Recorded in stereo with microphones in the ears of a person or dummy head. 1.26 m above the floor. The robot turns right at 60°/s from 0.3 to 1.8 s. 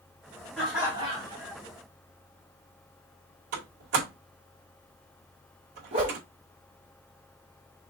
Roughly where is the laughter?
Behind.